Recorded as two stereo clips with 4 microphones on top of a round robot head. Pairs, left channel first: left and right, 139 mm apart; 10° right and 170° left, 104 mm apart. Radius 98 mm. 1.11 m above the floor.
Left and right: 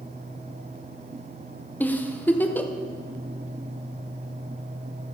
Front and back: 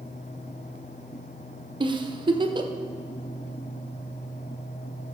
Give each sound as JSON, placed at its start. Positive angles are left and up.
{"t": 1.8, "sound": "a giggle", "azimuth_deg": 165, "distance_m": 0.9}